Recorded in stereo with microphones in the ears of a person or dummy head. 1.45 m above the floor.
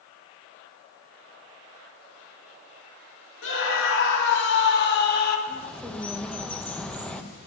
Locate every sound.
3.4 s a scream: 75° left (ahead or behind), 3 m; by 5.4 s 55° left (ahead or behind), 2.5 m
5.5 s a bird: centre (ahead or behind), 1.0 m